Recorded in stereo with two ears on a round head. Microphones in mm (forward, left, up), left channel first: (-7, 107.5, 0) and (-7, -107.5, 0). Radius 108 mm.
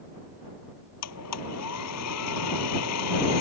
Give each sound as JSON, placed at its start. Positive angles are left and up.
{"t": 1.0, "sound": "a blender", "side_deg": 75}